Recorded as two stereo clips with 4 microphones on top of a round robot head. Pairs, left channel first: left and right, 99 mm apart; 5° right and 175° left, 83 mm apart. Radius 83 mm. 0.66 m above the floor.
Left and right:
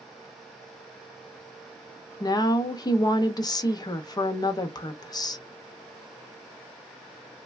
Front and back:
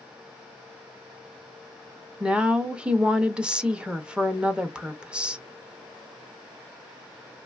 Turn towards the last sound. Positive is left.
turn(degrees=100)